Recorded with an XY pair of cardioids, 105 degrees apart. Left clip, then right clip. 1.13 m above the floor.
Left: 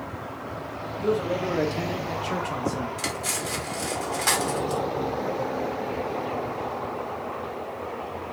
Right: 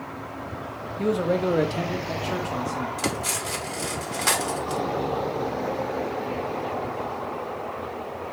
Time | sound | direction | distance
1.0 | a man speaking | 50° right | 0.8 m
3.0 | cutlery clinking | 10° right | 0.9 m